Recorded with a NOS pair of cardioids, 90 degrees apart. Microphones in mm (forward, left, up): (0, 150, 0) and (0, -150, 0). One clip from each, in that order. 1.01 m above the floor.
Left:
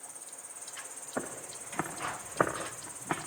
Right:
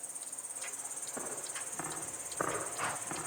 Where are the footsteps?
70° left, 5.5 m.